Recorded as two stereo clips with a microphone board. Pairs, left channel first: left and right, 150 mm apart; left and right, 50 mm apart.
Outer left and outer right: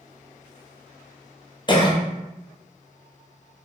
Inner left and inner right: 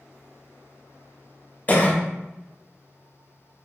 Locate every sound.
1.7 s a cough: 30° left (ahead or behind), 0.6 m